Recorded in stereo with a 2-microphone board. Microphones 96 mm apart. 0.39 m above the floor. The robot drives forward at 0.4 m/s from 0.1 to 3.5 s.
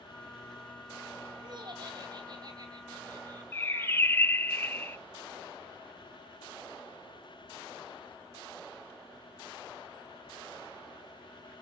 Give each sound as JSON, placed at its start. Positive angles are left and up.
{"t": 1.4, "sound": "laughter", "side_deg": -50, "distance_m": 2.0}
{"t": 3.5, "sound": "a bird", "side_deg": 25, "distance_m": 0.6}